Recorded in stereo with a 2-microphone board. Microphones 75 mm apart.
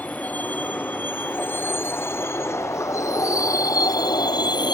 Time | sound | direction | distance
0.0 | a vehicle | 20° left (ahead or behind) | ?